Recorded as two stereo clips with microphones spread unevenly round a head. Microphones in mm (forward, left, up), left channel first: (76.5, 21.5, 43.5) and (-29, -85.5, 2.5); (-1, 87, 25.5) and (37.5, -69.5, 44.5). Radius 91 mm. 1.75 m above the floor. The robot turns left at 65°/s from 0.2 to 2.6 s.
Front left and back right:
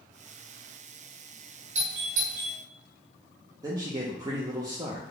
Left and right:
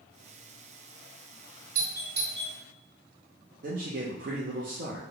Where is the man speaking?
60° right, 0.6 m.